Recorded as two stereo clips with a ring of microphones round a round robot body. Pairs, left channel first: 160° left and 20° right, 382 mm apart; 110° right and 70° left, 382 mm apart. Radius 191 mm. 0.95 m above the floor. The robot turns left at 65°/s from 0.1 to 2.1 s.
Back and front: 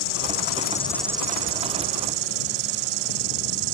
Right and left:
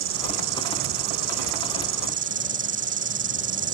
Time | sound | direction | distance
0.0 | an insect | 125° left | ?